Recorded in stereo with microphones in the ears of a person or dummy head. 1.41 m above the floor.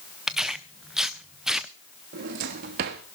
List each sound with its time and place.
0.3 s tearing paper: 5° right (ahead or behind), 0.6 m
2.1 s a drawer: 45° right (ahead or behind), 1.1 m